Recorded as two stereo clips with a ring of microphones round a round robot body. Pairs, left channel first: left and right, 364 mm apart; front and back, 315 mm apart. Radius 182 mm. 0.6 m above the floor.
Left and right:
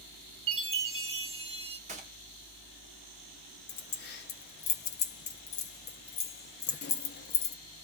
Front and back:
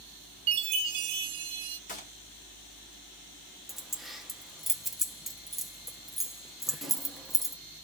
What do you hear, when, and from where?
0.5 s a chime: 165° right, 0.7 m
1.9 s a gunshot: 40° right, 1.1 m
3.7 s keys jangling: 90° left, 0.6 m